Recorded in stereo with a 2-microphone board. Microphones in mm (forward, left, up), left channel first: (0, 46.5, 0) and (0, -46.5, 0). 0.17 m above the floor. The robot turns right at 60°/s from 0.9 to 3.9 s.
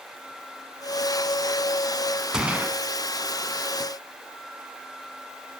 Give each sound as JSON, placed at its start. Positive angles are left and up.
{"t": 2.3, "sound": "a gunshot", "side_deg": -10, "distance_m": 1.0}